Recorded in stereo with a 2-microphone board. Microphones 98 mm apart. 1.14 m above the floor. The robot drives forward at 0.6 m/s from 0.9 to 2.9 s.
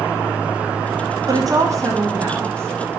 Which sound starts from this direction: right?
A woman speaking, at 1.3 s.